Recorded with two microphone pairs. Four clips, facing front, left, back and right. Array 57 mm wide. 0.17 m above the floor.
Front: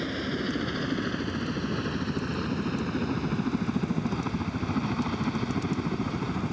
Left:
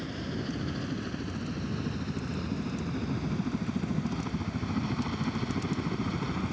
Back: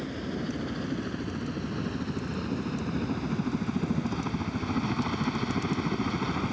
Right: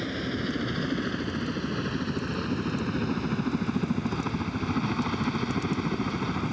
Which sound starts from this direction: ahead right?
A helicopter, at 0.0 s.